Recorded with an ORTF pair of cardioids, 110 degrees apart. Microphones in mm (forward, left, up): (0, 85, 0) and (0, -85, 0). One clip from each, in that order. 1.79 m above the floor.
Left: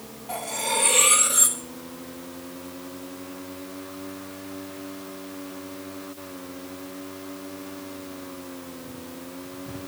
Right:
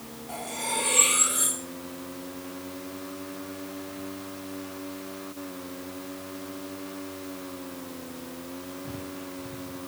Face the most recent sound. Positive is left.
turn(degrees=30)